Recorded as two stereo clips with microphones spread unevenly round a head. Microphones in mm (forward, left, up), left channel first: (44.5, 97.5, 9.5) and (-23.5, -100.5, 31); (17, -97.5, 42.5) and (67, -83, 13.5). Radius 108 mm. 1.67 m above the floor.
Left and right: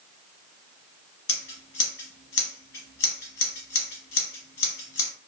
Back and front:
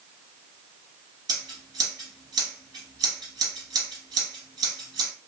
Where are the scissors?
50° left, 1.5 m.